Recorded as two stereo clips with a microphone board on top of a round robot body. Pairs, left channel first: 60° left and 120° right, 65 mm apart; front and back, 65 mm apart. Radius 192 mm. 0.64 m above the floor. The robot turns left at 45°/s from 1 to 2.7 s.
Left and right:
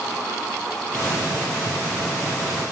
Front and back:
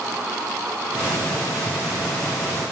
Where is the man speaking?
No man speaking in this recording.